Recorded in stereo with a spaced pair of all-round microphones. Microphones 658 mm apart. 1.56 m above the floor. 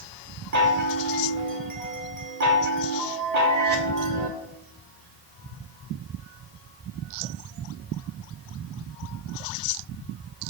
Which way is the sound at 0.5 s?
75° right (ahead or behind).